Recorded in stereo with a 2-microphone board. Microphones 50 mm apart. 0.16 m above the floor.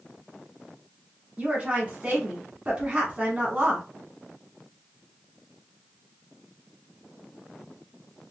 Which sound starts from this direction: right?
A woman speaking, at 1.4 s.